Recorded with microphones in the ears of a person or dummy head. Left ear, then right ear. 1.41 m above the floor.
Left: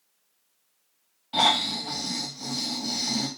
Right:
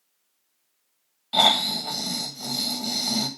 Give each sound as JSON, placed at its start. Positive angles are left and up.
{"t": 1.3, "sound": "snoring", "side_deg": -25, "distance_m": 0.8}